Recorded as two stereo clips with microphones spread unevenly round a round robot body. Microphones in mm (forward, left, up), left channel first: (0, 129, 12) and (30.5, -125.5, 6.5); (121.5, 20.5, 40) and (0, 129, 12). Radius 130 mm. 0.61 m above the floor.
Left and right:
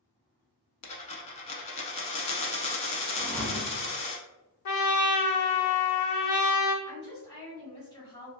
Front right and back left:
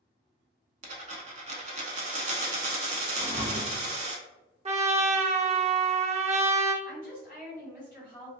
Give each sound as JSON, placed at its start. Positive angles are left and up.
{"t": 0.8, "sound": "a dropped coin", "azimuth_deg": 135, "distance_m": 0.6}
{"t": 3.2, "sound": "a thud", "azimuth_deg": -175, "distance_m": 0.7}
{"t": 4.7, "sound": "a trumpet", "azimuth_deg": 85, "distance_m": 0.6}
{"t": 6.8, "sound": "a woman speaking", "azimuth_deg": 160, "distance_m": 1.9}